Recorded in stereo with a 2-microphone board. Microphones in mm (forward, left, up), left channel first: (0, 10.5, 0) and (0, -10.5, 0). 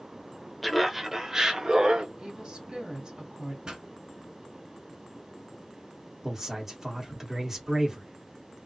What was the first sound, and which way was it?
Laughter, centre (ahead or behind).